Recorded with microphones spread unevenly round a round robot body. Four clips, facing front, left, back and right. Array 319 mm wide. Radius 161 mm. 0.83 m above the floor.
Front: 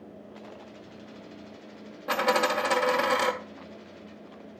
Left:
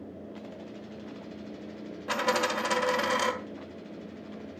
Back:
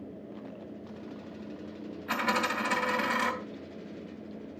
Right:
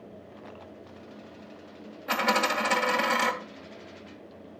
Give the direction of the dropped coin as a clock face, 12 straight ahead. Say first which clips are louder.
Right 2 dB, front 5 dB; 12 o'clock.